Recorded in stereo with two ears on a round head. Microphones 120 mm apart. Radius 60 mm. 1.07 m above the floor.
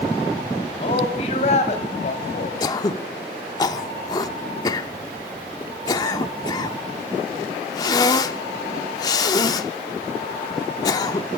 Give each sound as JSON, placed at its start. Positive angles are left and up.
{"t": 0.8, "sound": "a man speaking", "side_deg": 45, "distance_m": 6.0}
{"t": 2.6, "sound": "throat clearing", "side_deg": 30, "distance_m": 0.9}